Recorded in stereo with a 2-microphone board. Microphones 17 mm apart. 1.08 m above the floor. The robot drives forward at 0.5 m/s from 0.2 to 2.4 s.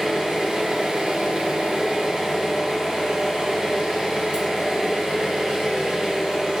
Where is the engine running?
50° right (ahead or behind), 0.9 m.